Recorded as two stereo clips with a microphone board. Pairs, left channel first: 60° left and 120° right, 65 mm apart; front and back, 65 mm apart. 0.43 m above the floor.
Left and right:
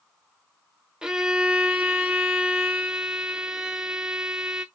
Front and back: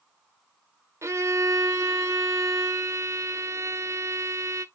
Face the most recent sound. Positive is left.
turn(degrees=165)